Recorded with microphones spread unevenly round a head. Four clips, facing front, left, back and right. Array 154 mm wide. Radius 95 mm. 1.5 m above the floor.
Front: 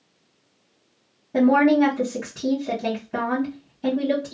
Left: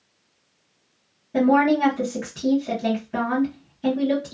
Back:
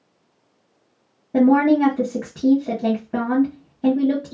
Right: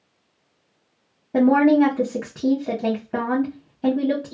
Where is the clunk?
I don't hear a clunk.